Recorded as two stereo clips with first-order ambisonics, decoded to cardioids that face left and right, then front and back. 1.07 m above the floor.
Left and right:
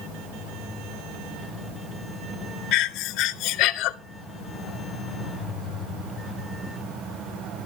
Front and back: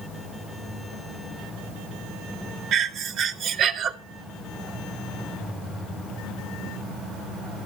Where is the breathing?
130° left, 0.6 m.